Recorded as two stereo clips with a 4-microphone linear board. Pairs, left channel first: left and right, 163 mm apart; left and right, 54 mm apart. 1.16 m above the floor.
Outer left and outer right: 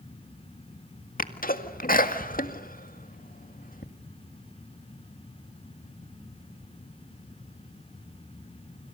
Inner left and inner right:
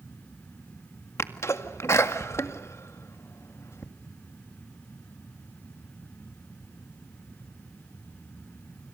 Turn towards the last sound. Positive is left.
turn(degrees=55)  # may be behind; listen again after turning